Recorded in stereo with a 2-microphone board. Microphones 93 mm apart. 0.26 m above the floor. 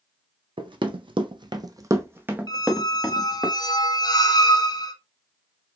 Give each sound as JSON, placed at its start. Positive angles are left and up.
{"t": 0.6, "sound": "running footsteps", "side_deg": -60, "distance_m": 0.6}
{"t": 2.5, "sound": "a squeak", "side_deg": 50, "distance_m": 0.5}